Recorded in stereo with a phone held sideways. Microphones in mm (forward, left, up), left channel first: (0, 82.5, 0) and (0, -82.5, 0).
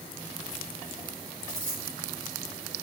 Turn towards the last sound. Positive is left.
turn(degrees=80)